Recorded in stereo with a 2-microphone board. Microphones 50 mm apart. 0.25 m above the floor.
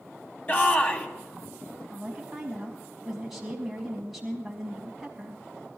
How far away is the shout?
About 2 m.